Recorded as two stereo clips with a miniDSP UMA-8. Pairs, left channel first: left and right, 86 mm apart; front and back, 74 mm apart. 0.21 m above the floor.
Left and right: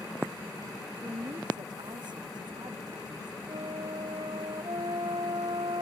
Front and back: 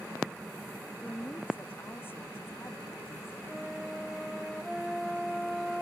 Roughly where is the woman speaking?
Ahead right.